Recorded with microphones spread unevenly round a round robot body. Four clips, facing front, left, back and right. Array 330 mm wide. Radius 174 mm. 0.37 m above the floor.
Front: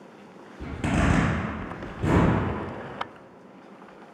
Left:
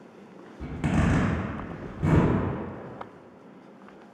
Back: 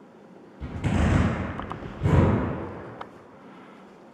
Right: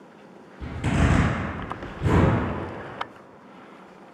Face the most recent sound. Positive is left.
turn(degrees=60)